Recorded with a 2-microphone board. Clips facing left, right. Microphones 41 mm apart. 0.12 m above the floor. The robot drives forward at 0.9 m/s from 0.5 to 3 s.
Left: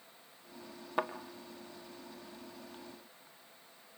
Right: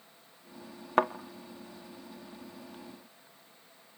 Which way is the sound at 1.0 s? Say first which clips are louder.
Right 8 dB; 55° right (ahead or behind).